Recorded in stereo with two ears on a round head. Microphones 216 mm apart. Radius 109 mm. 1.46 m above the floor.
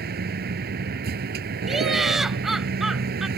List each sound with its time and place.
0.0 s a vehicle: 40° right (ahead or behind)
1.7 s laughter: centre (ahead or behind)